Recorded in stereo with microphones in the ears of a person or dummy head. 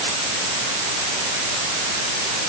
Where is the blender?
I don't hear a blender.